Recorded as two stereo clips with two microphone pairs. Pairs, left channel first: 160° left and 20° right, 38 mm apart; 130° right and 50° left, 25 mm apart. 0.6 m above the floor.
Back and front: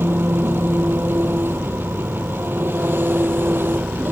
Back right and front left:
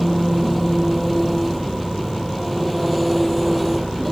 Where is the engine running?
40° right.